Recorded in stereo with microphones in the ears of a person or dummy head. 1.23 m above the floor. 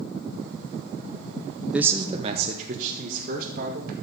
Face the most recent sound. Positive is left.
turn(degrees=-50)  # may be behind; listen again after turning